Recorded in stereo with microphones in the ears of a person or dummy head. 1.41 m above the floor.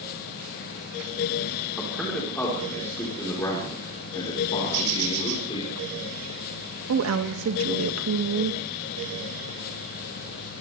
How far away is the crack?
No crack in this recording.